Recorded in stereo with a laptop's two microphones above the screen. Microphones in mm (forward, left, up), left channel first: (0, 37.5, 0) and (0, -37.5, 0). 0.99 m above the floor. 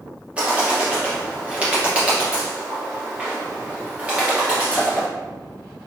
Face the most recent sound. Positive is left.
turn(degrees=-15)  # may be behind; listen again after turning